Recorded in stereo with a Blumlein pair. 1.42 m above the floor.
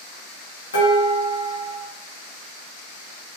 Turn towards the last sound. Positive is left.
turn(degrees=70)